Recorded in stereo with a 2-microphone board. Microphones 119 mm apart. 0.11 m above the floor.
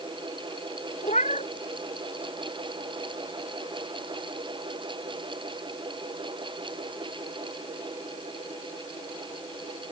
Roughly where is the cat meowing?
Left.